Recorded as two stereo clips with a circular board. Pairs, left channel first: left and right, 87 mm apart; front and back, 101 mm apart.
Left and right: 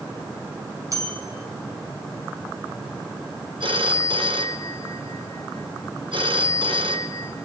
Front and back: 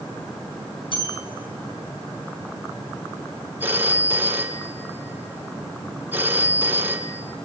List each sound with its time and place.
0.9 s a bell: 40° right, 5 m
3.6 s a phone ringing: 110° right, 1.8 m